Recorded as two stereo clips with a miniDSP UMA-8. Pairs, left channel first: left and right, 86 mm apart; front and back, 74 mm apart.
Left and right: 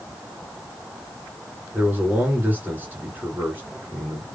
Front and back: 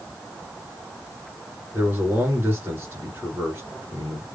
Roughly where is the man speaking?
Behind right.